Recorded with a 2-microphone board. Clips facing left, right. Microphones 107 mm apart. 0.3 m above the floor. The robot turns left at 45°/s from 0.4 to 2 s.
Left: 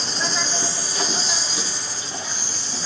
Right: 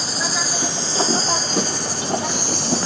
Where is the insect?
5° right, 0.7 m; by 2.9 s 75° right, 0.7 m.